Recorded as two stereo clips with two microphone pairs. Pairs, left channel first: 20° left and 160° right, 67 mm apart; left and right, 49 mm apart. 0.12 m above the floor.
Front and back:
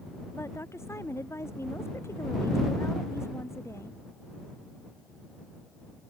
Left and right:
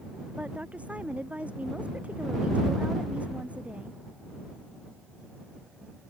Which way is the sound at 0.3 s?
30° right.